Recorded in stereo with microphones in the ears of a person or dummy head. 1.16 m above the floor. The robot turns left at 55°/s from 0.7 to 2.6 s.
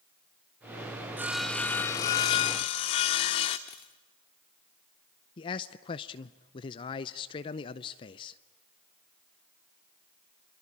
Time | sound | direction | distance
1.2 | sawing | 5° right (ahead or behind) | 0.7 m
3.7 | a dropped coin | 20° left (ahead or behind) | 0.7 m
5.4 | a man speaking | 30° left (ahead or behind) | 0.6 m